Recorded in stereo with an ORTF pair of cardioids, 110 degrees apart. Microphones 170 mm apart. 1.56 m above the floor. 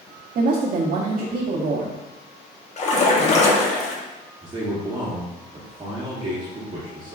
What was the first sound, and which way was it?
A woman speaking, 55° right.